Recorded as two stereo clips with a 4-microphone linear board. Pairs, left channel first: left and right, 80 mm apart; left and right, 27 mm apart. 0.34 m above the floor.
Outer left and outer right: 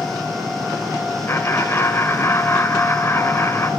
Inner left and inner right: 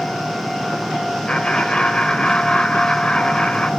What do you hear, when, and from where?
1.3 s laughter: 30° left (ahead or behind), 1.6 m